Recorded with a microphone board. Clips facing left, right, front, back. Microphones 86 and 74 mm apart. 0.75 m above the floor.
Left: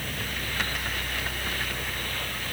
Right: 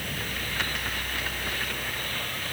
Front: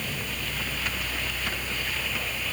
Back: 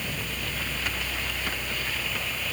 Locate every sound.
Only background noise.